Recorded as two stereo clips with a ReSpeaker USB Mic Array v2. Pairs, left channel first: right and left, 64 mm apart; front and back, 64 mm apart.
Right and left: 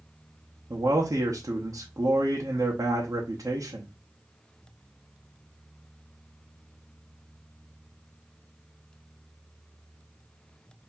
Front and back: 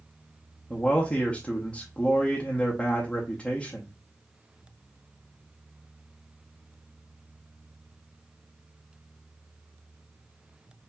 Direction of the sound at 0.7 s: 70° left.